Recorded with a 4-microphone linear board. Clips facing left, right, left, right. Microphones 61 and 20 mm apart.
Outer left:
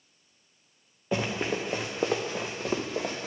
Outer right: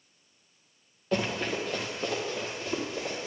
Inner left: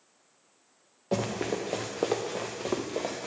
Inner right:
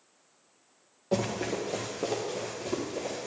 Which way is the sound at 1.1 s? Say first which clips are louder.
Even, even; 15° left (ahead or behind).